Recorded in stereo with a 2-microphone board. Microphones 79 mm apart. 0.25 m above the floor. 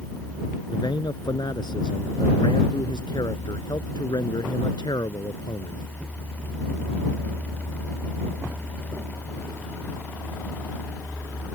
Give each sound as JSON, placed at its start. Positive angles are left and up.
{"t": 0.7, "sound": "a man speaking", "side_deg": 70}